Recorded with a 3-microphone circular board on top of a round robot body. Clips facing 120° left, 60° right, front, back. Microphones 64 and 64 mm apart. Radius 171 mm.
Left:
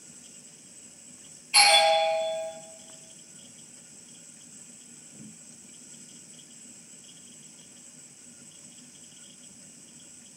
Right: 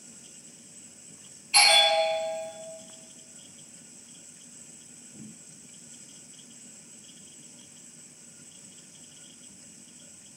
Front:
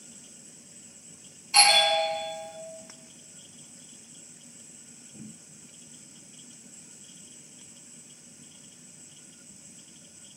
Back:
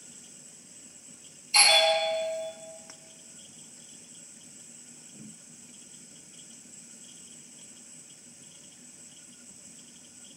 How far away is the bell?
About 1.4 m.